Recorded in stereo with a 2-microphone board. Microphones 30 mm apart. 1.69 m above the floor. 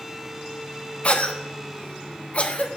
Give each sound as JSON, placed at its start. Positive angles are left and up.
{"t": 1.0, "sound": "a cough", "side_deg": 40, "distance_m": 0.8}